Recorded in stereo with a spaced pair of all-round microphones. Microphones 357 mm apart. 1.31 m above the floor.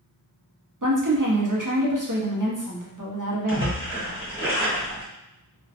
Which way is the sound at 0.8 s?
60° right (ahead or behind).